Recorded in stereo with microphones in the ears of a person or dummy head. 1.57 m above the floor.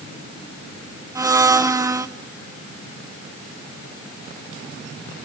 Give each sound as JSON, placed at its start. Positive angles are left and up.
{"t": 1.1, "sound": "a blender", "side_deg": -10, "distance_m": 0.7}